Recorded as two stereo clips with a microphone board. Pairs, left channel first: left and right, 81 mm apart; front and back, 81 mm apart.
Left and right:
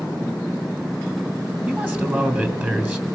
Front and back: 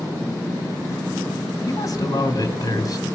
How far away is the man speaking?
About 2.5 m.